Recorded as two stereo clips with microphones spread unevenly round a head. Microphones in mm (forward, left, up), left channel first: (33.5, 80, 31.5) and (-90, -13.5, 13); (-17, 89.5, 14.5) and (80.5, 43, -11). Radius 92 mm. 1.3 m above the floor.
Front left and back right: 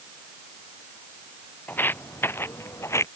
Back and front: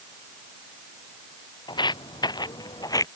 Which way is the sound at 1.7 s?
115° left.